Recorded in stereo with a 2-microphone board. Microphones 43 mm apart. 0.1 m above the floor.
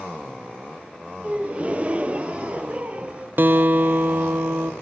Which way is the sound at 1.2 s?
30° right (ahead or behind).